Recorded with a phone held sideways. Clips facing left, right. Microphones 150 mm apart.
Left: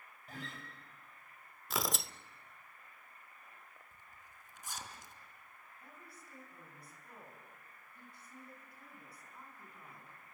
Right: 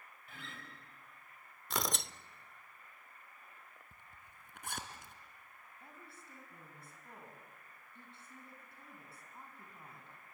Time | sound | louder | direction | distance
0.3 | a guitar | left 5 dB | 40° left (ahead or behind) | 5 m
1.7 | tearing paper | even | centre (ahead or behind) | 0.5 m
3.9 | a zipper | even | 60° right (ahead or behind) | 2.5 m
5.8 | a woman speaking | right 1 dB | 25° right (ahead or behind) | 7 m